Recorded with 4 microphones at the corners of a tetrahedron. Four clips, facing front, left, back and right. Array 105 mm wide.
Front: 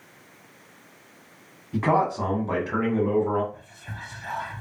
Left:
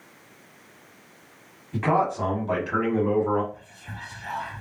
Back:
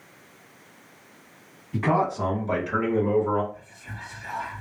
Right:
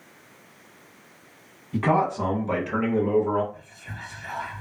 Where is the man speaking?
20° right, 1.2 m; by 3.4 s 95° left, 1.2 m.